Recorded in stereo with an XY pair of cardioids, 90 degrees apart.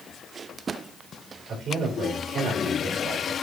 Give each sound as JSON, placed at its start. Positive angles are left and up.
{"t": 1.5, "sound": "a man speaking", "azimuth_deg": -70, "distance_m": 4.0}